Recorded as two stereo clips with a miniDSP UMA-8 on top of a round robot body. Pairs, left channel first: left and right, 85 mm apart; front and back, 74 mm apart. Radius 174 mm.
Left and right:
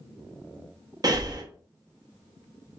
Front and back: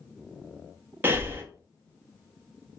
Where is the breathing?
120° right, 0.9 m.